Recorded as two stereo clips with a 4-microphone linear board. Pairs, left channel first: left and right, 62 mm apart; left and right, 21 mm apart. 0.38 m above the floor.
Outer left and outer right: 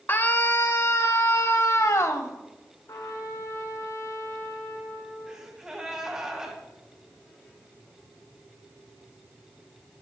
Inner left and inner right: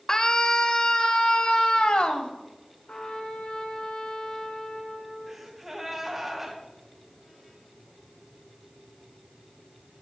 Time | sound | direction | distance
0.1 | a scream | 35° left (ahead or behind) | 1.3 m
2.9 | a trumpet | 65° left (ahead or behind) | 4.5 m
5.3 | a gasp | 10° right (ahead or behind) | 3 m